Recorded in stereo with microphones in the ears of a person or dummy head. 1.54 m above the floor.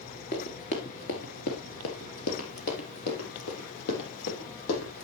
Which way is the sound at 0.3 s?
25° left (ahead or behind).